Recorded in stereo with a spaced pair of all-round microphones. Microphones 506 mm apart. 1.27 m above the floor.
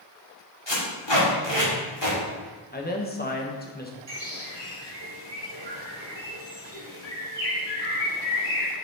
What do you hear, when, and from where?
0.7 s tape being pulled: 55° left (ahead or behind), 2 m
2.7 s a man speaking: 20° left (ahead or behind), 1.0 m
4.1 s a bird: 55° right (ahead or behind), 2 m